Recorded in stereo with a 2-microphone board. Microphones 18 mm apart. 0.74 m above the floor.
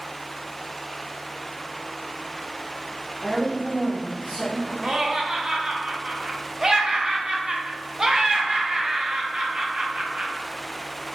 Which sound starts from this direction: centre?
A woman speaking, at 3.2 s.